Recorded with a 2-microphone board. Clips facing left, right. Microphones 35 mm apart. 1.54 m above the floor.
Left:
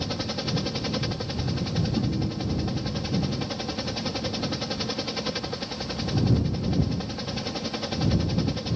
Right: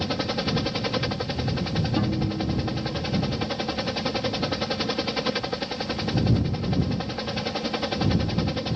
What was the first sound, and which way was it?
A helicopter, 20° right (ahead or behind).